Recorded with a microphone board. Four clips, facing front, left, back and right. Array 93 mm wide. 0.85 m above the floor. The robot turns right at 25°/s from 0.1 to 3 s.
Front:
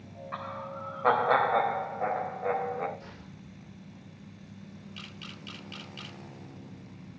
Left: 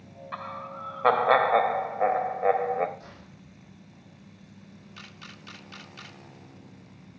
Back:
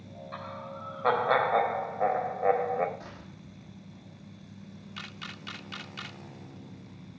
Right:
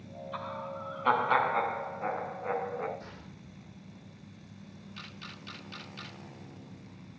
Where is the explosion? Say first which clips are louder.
Even, back 1 dB; 175° left, 8 m.